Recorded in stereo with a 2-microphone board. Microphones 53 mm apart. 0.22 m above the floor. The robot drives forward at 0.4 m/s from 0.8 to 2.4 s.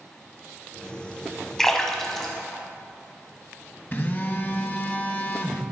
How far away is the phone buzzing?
About 0.8 m.